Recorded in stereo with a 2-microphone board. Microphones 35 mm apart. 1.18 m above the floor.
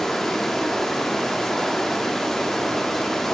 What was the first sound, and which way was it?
Running water, 5° left (ahead or behind).